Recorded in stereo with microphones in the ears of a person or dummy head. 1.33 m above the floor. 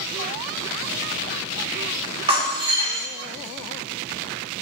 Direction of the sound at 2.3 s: 30° right (ahead or behind).